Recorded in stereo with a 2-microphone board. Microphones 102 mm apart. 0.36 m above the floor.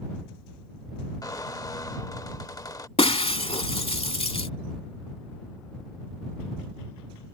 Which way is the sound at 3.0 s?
70° left (ahead or behind).